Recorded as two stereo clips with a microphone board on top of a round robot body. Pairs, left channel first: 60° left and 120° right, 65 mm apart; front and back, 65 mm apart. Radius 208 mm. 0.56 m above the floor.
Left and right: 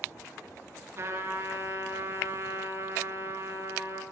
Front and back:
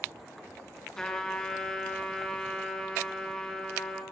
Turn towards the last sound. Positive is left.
turn(degrees=-75)